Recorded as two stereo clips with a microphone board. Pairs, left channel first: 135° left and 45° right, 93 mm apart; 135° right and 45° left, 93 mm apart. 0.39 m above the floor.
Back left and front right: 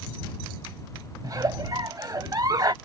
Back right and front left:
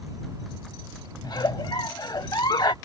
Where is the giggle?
95° right.